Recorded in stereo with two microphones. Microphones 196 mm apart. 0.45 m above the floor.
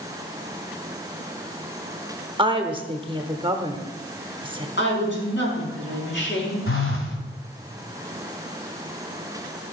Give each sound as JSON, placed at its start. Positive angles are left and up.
{"t": 2.4, "sound": "a woman speaking", "side_deg": -25, "distance_m": 1.0}
{"t": 4.8, "sound": "a woman speaking", "side_deg": 65, "distance_m": 5.0}
{"t": 6.7, "sound": "a phone buzzing", "side_deg": 80, "distance_m": 1.9}